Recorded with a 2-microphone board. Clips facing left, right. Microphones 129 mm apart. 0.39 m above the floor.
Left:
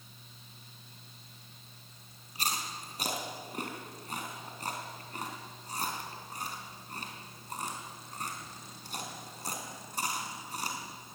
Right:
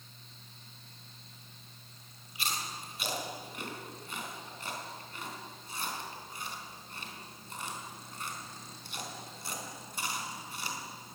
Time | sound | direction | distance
2.4 | chewing | 40° left (ahead or behind) | 3.5 m